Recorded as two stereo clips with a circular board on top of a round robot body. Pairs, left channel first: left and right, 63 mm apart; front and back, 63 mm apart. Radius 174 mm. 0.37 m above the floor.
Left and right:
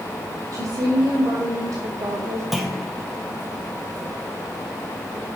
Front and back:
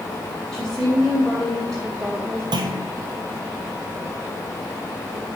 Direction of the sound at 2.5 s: Straight behind.